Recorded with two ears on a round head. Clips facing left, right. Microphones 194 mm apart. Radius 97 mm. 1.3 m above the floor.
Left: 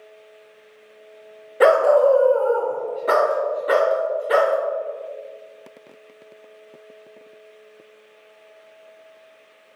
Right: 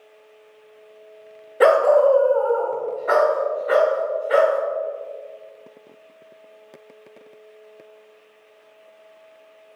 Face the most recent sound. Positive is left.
turn(degrees=55)  # may be behind; listen again after turning